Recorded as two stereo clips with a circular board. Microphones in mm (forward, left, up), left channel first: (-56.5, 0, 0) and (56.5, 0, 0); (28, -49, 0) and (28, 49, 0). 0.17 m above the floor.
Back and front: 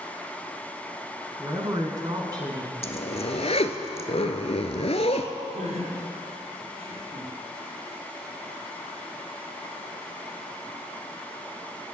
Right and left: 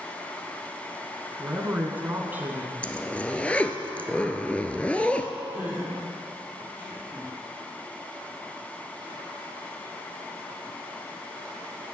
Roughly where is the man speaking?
Ahead left.